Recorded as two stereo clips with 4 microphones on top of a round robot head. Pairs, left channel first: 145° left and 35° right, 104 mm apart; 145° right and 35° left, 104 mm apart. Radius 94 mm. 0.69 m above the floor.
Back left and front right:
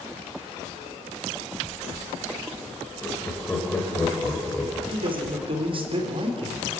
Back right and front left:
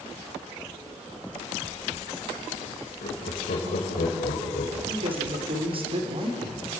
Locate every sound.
3.0 s laughter: 135° right, 3.5 m
4.9 s a man speaking: straight ahead, 2.5 m